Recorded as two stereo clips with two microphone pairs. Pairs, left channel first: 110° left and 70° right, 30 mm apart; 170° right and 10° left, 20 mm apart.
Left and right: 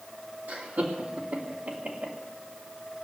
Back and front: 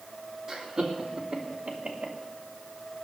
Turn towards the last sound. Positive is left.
turn(degrees=-35)